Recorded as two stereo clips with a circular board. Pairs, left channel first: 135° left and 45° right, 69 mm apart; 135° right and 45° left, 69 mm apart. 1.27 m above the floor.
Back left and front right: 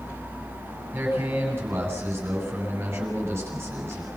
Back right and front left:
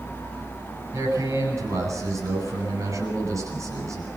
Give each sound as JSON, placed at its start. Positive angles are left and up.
{"t": 0.9, "sound": "a man speaking", "azimuth_deg": 10, "distance_m": 9.5}